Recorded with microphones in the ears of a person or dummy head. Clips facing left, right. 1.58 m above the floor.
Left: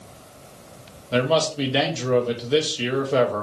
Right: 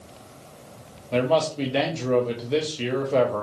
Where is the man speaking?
5° left (ahead or behind), 0.5 m.